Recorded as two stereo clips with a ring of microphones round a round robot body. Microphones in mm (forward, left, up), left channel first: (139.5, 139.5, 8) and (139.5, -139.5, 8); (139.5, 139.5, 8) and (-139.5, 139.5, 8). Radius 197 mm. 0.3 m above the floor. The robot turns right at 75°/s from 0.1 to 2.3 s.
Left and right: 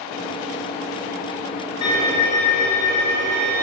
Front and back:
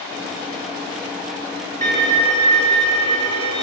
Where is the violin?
120° left, 2.5 m; by 3.6 s 155° left, 2.5 m.